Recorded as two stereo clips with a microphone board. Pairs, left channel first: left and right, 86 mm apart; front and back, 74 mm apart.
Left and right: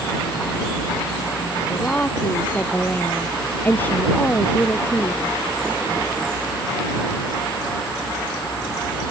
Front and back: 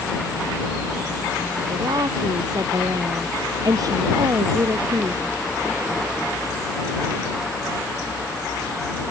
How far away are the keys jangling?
I don't hear keys jangling.